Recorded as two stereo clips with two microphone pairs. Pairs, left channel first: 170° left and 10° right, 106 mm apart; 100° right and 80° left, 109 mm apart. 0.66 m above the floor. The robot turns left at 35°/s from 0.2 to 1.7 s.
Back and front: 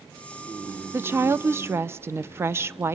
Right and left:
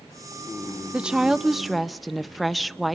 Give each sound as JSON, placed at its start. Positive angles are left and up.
{"t": 0.9, "sound": "a woman speaking", "azimuth_deg": 10, "distance_m": 0.5}